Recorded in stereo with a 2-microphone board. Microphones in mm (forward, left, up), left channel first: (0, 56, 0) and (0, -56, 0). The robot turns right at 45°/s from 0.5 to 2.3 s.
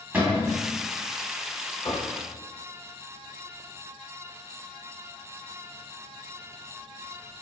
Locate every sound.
0.1 s a cupboard door: 15° right (ahead or behind), 0.8 m
1.8 s knocking: 65° left (ahead or behind), 0.9 m; by 2.1 s 70° left (ahead or behind), 0.9 m